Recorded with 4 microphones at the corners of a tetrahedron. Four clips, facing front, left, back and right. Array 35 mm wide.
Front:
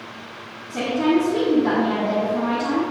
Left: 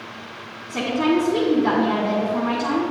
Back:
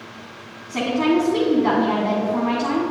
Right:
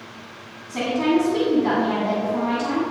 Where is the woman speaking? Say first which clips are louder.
Even, even; 170° left, 1.8 m.